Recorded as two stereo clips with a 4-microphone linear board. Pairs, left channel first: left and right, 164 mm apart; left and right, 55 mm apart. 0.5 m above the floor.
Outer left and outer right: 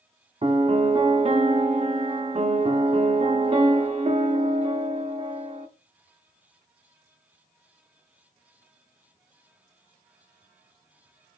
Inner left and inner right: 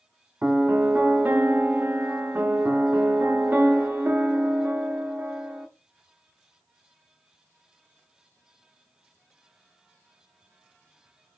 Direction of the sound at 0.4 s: 40° right (ahead or behind).